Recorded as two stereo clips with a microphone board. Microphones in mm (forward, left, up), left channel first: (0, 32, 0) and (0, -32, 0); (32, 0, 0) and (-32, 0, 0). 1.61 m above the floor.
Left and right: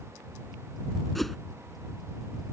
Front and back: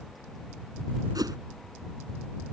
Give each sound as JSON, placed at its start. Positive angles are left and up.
{"t": 1.1, "sound": "a whoosh", "azimuth_deg": 180}